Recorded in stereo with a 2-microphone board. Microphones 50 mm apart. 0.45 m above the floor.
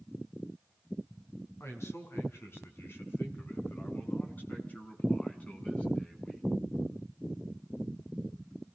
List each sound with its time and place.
1.6 s a man speaking: 60° left (ahead or behind), 5.5 m; by 6.5 s 25° left (ahead or behind), 5.5 m